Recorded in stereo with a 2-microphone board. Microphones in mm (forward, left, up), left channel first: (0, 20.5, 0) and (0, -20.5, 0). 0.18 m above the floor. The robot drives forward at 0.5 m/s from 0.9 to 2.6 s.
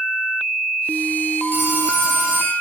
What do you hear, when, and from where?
1.5 s a phone ringing: 60° right (ahead or behind), 4.5 m; by 2.5 s 55° right (ahead or behind), 4.5 m